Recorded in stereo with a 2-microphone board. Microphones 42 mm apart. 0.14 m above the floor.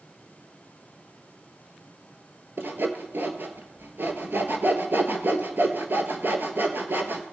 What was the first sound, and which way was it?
Sawing, 60° right (ahead or behind).